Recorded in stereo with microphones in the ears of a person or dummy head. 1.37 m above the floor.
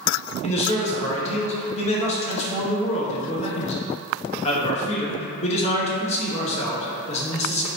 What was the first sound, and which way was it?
A man speaking, 35° left (ahead or behind).